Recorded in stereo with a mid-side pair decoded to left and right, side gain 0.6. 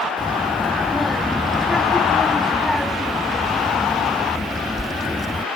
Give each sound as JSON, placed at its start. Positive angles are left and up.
{"t": 0.2, "sound": "a child speaking", "azimuth_deg": 10}